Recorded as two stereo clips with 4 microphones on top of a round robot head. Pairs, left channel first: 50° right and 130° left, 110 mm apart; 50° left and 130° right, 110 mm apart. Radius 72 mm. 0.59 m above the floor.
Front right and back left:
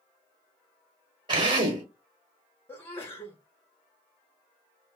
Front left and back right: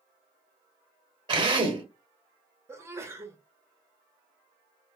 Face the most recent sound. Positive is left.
turn(degrees=-90)